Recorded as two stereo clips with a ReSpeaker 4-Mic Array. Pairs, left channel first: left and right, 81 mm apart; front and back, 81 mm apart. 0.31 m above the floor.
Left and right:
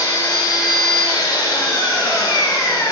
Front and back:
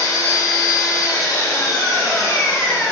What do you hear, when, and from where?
0.0 s an engine running: 50° left, 1.1 m